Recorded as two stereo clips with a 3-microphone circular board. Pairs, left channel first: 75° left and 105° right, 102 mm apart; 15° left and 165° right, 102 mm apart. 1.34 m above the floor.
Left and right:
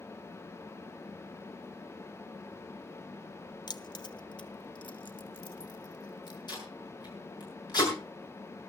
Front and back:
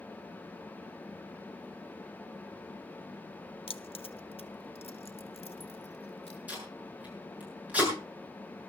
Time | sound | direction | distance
3.7 | keys jangling | 30° left | 0.6 m
6.5 | tape being pulled | 120° left | 7 m